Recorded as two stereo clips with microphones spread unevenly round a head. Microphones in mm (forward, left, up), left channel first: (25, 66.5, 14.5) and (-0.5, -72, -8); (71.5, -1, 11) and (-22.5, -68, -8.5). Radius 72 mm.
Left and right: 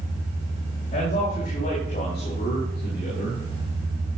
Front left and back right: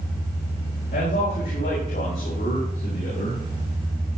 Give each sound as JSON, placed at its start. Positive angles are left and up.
{"t": 0.9, "sound": "a man speaking", "azimuth_deg": 35, "distance_m": 4.5}